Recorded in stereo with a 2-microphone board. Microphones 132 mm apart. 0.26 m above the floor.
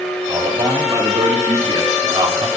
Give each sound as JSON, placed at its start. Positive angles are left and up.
{"t": 0.3, "sound": "a man speaking", "side_deg": -30, "distance_m": 4.5}